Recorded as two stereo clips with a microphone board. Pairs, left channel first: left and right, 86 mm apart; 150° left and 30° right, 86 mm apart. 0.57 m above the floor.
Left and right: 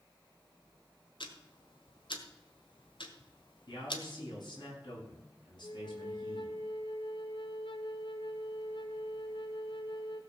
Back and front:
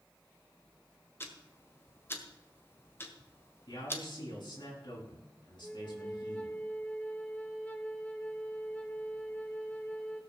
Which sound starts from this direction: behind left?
A man speaking, at 3.7 s.